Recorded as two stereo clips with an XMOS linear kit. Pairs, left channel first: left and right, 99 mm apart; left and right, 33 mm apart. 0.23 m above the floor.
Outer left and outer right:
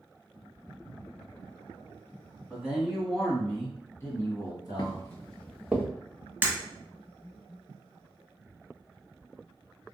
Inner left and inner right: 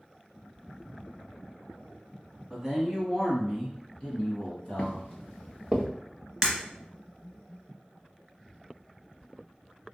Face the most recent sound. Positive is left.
turn(degrees=-20)  # may be behind; listen again after turning